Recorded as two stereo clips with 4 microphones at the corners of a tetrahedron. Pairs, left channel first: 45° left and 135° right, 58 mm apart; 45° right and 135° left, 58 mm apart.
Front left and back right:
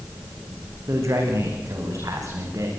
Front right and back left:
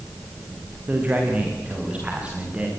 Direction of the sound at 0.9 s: 165° right.